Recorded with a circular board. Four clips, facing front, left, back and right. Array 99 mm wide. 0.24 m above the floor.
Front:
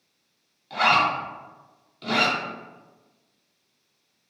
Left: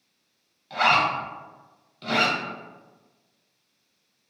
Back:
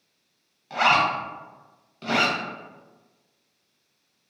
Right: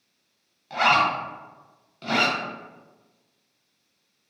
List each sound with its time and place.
0.7 s a zipper: 145° right, 0.9 m